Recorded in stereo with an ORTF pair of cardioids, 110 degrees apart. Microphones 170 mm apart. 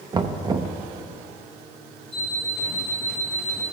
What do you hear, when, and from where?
0.1 s knocking: 25° right, 0.5 m
2.1 s an alarm clock: 60° right, 1.9 m